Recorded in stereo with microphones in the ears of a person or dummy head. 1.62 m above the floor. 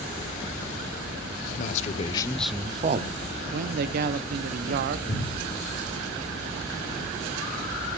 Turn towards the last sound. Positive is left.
turn(degrees=55)  # may be behind; listen again after turning